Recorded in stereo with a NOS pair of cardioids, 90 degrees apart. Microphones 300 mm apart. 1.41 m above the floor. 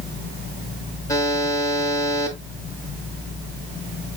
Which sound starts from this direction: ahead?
A buzzer, at 1.1 s.